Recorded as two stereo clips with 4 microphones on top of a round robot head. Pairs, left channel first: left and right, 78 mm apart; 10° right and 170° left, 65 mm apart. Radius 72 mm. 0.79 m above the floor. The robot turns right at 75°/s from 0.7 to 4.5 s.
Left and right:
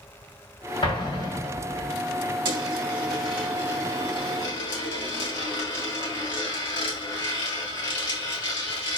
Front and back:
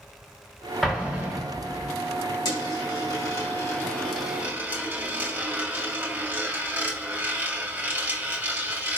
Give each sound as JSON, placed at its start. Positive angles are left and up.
{"t": 0.8, "sound": "an explosion", "azimuth_deg": 80, "distance_m": 3.0}
{"t": 2.5, "sound": "a dropped coin", "azimuth_deg": -50, "distance_m": 2.5}